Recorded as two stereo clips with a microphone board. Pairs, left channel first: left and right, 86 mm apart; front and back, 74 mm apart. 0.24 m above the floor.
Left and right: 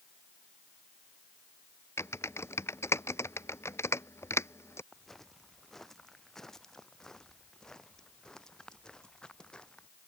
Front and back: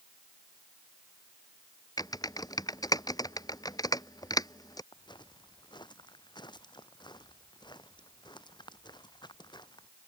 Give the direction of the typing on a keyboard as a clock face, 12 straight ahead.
11 o'clock.